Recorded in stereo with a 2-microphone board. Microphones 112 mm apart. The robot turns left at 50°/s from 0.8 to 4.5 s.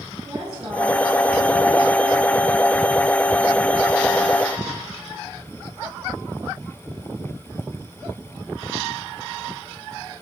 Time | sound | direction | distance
0.2 | a woman speaking | 140° right | 5.5 m